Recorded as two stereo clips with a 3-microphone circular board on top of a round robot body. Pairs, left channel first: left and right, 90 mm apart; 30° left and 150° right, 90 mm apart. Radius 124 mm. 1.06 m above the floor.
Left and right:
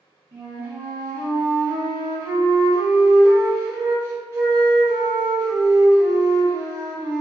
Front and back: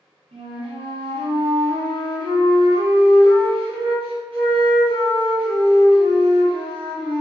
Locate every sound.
0.3 s a flute: 150° right, 1.5 m